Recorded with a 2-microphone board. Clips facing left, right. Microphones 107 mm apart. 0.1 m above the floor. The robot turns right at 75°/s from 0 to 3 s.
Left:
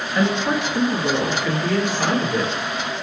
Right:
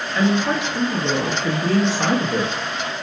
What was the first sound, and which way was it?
A woman speaking, 150° left.